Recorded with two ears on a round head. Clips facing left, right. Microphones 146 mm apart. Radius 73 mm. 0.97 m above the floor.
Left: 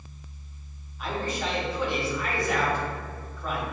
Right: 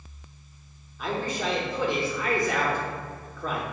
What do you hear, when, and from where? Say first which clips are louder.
1.0 s a man speaking: right 1 dB; 75° right (ahead or behind), 2 m